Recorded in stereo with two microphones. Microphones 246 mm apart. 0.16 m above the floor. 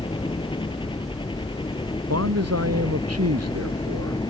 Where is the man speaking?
80° right.